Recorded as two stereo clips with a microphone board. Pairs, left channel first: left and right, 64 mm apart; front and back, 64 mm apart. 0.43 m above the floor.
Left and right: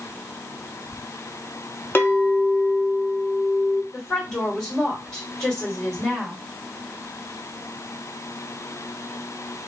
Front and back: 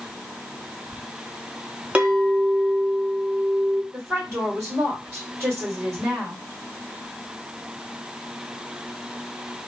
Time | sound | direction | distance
1.9 | a clink | 125° left | 0.6 m
3.9 | a woman speaking | 165° left | 1.8 m